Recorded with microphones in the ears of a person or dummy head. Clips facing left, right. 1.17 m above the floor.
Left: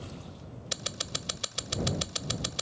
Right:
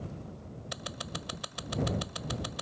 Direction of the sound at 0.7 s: 40° left (ahead or behind).